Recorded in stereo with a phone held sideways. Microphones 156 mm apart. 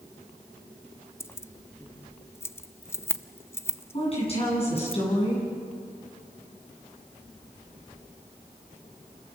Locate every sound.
1.2 s keys jangling: 15° left (ahead or behind), 0.5 m
3.9 s a woman speaking: 40° left (ahead or behind), 9 m